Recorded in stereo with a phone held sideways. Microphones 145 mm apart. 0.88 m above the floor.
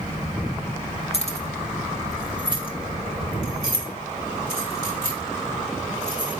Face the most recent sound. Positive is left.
turn(degrees=80)